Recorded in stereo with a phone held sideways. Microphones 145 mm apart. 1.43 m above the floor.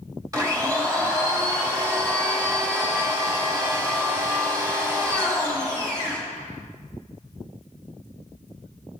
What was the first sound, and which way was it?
A blender, 25° right (ahead or behind).